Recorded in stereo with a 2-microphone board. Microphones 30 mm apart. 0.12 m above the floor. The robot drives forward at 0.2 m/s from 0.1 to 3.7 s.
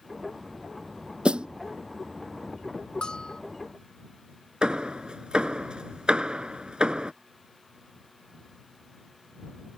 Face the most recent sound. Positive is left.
turn(degrees=-35)  # may be behind; listen again after turning